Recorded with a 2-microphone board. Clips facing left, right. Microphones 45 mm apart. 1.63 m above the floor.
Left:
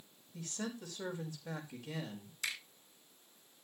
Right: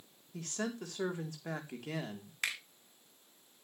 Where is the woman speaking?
75° right (ahead or behind), 3.5 m.